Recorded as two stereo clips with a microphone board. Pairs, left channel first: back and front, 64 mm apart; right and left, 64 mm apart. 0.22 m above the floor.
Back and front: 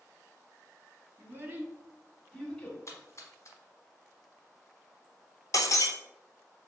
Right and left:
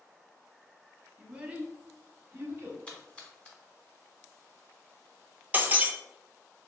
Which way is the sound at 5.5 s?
155° left.